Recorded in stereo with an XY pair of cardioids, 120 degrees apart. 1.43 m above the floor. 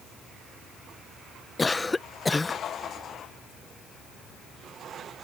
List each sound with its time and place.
1.6 s a cough: 15° left